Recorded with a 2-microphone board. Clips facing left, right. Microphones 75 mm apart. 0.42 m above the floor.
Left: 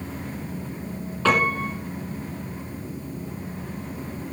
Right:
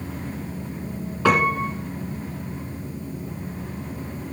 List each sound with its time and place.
1.2 s a piano: 10° right (ahead or behind), 2.5 m